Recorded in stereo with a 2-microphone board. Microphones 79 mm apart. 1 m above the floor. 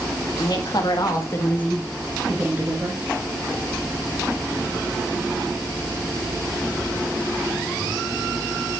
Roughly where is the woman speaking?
Left.